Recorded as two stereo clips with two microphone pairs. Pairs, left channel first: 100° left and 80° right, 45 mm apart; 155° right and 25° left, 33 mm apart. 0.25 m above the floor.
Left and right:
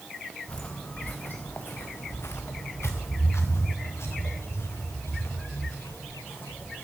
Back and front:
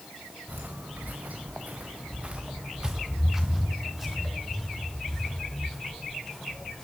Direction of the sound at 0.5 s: 35° left.